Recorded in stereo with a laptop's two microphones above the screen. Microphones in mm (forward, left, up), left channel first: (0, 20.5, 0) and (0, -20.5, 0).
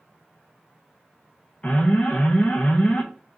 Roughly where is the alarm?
Left.